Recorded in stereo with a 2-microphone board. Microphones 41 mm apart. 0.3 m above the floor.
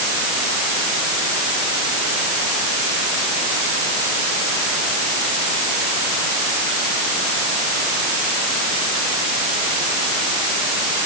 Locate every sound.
Only background noise.